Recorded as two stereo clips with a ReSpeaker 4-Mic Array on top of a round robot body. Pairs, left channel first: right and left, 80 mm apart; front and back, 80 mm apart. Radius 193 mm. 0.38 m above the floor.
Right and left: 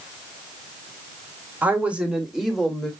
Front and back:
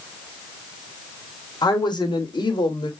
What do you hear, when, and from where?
1.6 s a woman speaking: 20° left, 2 m; by 2.9 s straight ahead, 2.5 m